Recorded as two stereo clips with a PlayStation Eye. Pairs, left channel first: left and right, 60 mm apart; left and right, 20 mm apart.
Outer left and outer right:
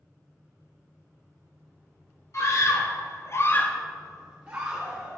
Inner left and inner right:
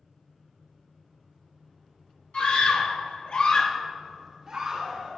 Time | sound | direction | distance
2.3 | a scream | 50° left (ahead or behind) | 1.5 m